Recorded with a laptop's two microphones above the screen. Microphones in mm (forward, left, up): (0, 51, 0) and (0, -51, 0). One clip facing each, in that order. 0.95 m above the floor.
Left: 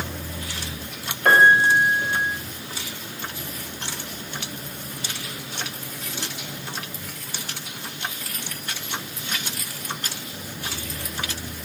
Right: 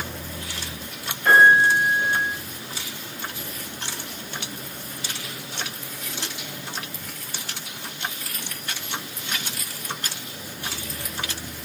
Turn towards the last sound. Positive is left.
turn(degrees=60)  # may be behind; listen again after turning